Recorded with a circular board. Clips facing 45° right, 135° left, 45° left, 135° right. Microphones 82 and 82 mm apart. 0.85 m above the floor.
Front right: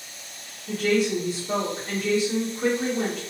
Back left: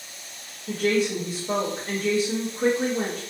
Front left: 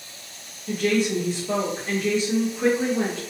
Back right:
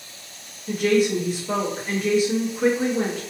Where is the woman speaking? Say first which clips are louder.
Even, back right 3 dB; 145° left, 0.7 m.